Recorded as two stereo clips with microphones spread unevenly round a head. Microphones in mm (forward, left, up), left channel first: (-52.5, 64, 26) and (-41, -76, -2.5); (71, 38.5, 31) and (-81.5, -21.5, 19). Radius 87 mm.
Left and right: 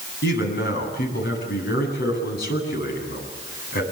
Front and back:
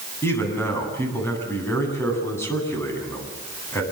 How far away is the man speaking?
About 9 m.